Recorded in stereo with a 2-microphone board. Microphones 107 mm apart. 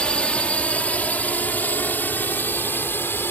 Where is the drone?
10° left (ahead or behind); by 3.3 s 20° left (ahead or behind).